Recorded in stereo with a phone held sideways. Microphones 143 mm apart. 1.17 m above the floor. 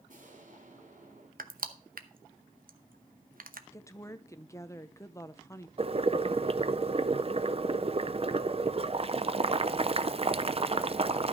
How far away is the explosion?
About 2.5 m.